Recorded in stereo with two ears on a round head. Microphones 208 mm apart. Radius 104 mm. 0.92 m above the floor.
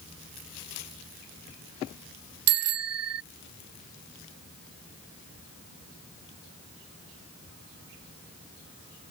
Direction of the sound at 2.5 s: 70° right (ahead or behind).